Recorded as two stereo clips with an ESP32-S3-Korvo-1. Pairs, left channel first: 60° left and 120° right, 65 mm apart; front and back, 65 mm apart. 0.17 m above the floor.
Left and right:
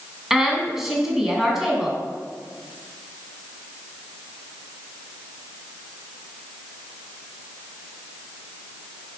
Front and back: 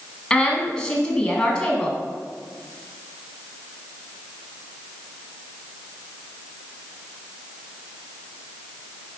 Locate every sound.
0.3 s a woman speaking: 50° right, 1.0 m